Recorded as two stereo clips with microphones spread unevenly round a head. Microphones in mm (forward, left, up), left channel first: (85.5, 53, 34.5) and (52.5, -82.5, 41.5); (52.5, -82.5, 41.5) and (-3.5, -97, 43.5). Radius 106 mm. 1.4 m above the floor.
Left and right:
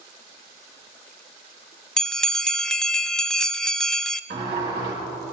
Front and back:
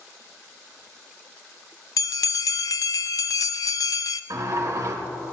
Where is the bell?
10° right, 0.5 m.